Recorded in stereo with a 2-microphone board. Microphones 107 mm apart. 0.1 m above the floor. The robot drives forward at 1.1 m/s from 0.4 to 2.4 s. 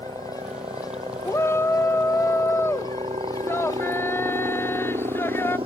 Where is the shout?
25° left (ahead or behind); by 5.6 s 20° left (ahead or behind).